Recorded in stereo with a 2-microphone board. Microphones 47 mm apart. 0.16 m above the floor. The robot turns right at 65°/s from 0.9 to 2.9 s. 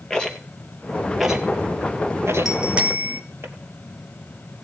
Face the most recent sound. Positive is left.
turn(degrees=-30)  # may be behind; listen again after turning